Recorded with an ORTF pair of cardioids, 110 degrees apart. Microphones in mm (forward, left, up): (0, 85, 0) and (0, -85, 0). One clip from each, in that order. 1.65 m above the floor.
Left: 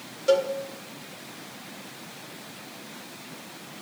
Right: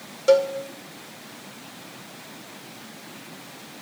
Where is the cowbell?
30° right, 1.9 m.